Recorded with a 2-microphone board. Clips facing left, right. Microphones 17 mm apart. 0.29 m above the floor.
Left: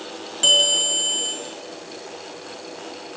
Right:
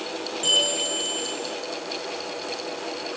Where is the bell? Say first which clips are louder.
Left 6 dB; 35° left (ahead or behind), 6 m.